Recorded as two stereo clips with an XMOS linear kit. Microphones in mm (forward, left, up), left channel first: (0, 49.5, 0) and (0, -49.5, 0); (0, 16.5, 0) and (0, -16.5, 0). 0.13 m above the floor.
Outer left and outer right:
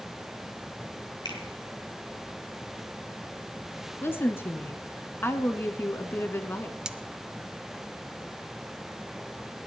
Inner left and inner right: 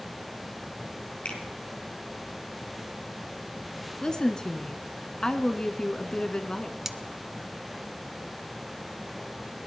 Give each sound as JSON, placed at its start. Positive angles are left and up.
{"t": 1.2, "sound": "a finger snap", "side_deg": 50, "distance_m": 3.5}
{"t": 4.0, "sound": "a woman speaking", "side_deg": 25, "distance_m": 1.2}
{"t": 6.8, "sound": "cutlery clinking", "side_deg": -10, "distance_m": 0.6}